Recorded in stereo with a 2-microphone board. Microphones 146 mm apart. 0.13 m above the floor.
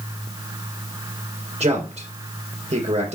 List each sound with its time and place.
1.6 s a man speaking: 45° right (ahead or behind), 2.5 m